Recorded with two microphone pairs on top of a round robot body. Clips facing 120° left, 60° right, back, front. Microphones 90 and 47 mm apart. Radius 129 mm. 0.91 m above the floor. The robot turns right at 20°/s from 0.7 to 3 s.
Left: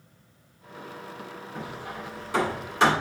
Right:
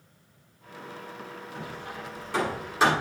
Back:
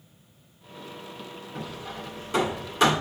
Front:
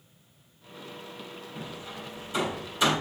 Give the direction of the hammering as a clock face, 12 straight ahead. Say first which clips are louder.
Left 2 dB, back 4 dB; 6 o'clock.